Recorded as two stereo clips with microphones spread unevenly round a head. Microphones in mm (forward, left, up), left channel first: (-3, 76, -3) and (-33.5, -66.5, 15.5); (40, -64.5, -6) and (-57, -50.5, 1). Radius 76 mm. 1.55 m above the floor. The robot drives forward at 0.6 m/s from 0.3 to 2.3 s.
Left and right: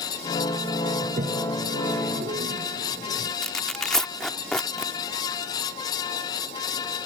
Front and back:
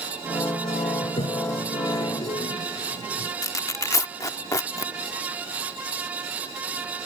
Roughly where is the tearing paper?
Ahead.